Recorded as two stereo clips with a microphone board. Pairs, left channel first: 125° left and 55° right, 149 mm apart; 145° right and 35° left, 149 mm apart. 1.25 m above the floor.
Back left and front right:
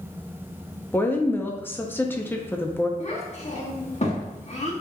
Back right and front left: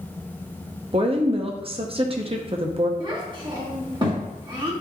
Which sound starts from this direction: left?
A child speaking, at 3.0 s.